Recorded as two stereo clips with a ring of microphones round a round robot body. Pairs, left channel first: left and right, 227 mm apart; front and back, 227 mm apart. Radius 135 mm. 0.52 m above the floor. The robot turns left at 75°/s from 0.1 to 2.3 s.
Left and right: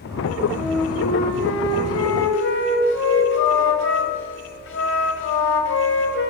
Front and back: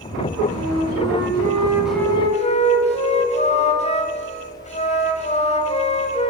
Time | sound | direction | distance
0.5 | a flute | 165° right | 3 m